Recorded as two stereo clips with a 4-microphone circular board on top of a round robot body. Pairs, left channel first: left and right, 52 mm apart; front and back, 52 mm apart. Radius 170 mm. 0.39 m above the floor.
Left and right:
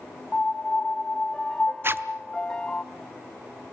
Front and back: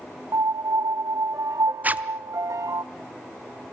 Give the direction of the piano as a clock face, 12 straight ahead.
7 o'clock.